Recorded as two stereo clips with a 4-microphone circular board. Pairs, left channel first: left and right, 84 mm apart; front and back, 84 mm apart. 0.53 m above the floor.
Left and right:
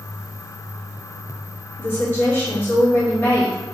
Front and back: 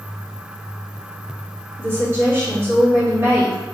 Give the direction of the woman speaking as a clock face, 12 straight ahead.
7 o'clock.